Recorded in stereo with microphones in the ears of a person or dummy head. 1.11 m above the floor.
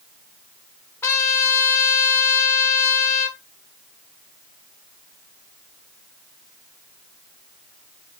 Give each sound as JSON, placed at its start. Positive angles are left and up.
{"t": 1.0, "sound": "a trumpet", "side_deg": 15, "distance_m": 0.9}